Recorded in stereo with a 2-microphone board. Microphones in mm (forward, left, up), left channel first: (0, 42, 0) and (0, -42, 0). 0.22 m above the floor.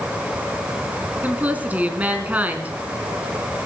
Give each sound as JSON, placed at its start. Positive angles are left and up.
{"t": 1.2, "sound": "a woman speaking", "side_deg": -15, "distance_m": 2.5}